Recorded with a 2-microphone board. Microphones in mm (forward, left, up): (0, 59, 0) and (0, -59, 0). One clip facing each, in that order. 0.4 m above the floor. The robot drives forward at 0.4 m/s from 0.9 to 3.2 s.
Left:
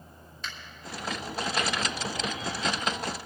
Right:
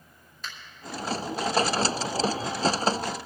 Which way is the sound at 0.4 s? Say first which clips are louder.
Even; 5° right (ahead or behind).